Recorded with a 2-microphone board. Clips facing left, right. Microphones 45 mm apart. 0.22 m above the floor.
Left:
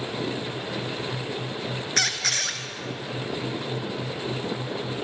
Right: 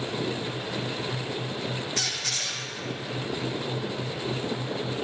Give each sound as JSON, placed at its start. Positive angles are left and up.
{"t": 2.0, "sound": "a squeak", "side_deg": 80, "distance_m": 0.5}